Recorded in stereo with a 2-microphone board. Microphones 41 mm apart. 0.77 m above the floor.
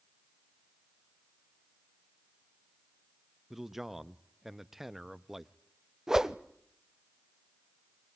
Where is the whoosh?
10° right (ahead or behind), 0.6 m.